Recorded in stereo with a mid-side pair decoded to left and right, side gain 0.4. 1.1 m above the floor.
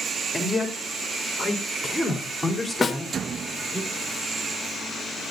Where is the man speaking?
15° left, 3.5 m; by 3.8 s 5° right, 5 m.